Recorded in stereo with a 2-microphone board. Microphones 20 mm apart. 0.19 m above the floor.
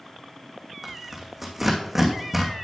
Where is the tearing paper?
10° right (ahead or behind), 2.5 m.